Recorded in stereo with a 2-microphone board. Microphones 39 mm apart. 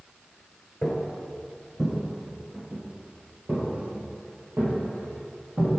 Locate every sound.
0.8 s footsteps: 20° left (ahead or behind), 1.1 m; by 5.7 s 60° right (ahead or behind), 2.5 m